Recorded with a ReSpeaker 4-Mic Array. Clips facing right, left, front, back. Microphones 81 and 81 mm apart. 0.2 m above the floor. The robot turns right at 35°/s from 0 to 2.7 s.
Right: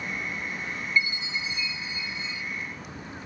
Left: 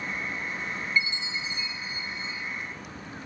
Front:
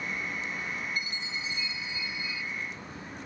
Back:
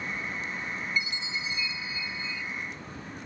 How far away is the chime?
About 1.8 m.